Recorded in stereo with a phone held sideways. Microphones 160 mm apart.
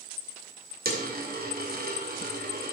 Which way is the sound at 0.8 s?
70° right (ahead or behind).